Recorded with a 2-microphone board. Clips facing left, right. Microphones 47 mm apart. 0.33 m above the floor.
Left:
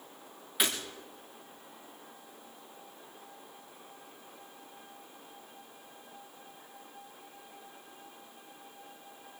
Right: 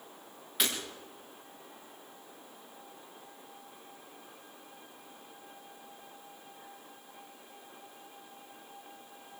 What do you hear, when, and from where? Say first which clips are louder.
0.6 s breaking glass: left 1 dB; 5° left (ahead or behind), 6 m